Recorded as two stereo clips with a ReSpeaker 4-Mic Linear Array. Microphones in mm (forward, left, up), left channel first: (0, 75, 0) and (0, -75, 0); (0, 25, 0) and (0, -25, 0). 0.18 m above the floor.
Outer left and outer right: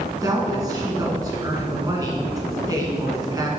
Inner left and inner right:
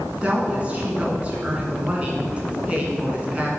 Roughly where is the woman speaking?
Right.